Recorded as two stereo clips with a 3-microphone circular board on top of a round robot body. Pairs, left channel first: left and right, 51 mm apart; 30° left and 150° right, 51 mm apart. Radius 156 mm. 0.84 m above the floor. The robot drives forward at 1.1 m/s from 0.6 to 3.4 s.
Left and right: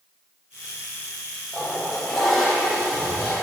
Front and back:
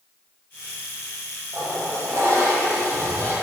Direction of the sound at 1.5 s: 175° left.